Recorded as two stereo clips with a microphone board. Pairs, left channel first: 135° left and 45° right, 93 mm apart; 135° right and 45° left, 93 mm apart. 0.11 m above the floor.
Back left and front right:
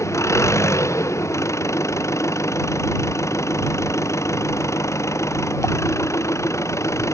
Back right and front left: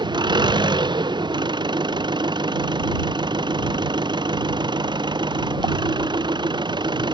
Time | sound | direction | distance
0.0 | an engine running | 80° left | ?